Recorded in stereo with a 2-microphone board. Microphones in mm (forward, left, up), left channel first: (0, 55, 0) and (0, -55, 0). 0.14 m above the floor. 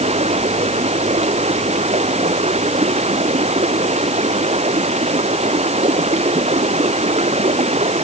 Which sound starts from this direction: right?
Running water, at 0.0 s.